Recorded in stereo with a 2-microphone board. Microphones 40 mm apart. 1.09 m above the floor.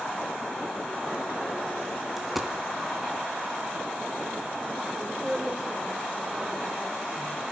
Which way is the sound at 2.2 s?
5° right (ahead or behind).